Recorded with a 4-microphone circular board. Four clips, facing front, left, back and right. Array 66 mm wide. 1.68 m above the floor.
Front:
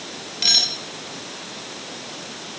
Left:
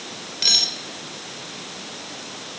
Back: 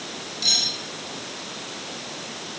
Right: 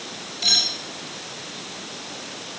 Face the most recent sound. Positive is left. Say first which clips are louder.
# right 1 dB, front 4 dB
turn(degrees=40)